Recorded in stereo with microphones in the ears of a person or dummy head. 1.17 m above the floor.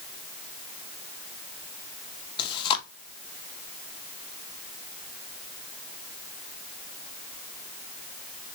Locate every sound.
2.4 s chewing: 25° left (ahead or behind), 0.7 m